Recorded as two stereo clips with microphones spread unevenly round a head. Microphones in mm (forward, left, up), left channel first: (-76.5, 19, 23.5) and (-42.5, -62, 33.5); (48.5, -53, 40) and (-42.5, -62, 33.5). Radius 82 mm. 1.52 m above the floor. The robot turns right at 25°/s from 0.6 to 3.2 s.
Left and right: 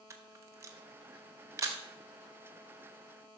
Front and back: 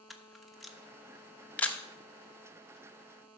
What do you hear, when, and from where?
0.1 s a camera shutter: 75° right, 0.9 m; by 1.8 s 45° right, 0.9 m